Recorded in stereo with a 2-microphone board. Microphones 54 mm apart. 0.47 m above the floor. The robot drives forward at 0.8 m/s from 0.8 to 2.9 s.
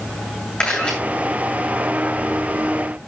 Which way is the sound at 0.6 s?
15° left (ahead or behind).